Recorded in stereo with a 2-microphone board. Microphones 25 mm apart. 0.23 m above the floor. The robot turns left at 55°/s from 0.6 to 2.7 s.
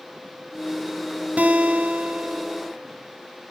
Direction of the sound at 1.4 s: 80° right.